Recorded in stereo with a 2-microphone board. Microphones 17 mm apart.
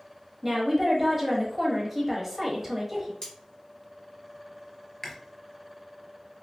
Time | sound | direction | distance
0.4 | a woman speaking | 10° right (ahead or behind) | 1.0 m
3.2 | cutlery clinking | 55° left (ahead or behind) | 1.8 m
5.0 | chewing | 25° left (ahead or behind) | 0.7 m